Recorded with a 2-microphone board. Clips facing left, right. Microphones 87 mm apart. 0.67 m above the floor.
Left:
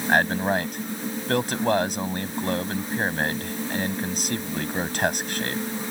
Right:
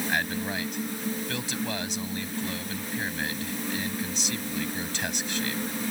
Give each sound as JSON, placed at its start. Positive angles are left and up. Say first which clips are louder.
{"t": 0.1, "sound": "a man speaking", "louder": "left 12 dB", "side_deg": 50}